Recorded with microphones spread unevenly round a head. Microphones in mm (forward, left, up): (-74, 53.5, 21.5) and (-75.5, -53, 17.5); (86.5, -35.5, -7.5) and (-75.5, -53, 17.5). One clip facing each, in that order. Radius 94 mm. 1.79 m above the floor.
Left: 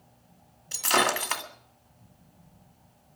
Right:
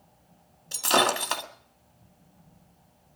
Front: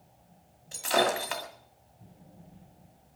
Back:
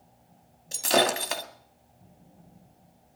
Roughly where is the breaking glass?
Behind right.